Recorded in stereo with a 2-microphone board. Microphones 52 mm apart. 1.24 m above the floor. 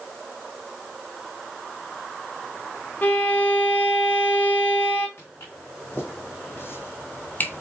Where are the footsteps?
45° left (ahead or behind), 3.5 m; by 7.6 s 30° left (ahead or behind), 1.4 m.